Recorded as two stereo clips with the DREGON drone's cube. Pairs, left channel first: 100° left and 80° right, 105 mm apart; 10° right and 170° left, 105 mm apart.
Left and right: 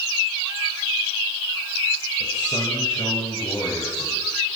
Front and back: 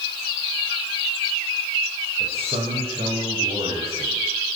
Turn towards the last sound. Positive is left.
turn(degrees=150)